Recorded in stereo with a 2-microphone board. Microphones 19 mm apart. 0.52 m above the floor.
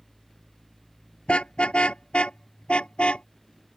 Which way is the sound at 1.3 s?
80° left.